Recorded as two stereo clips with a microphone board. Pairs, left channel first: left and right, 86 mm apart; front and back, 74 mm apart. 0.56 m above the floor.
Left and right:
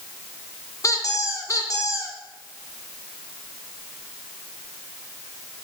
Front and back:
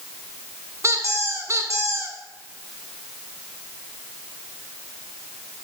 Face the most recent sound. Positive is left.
turn(degrees=135)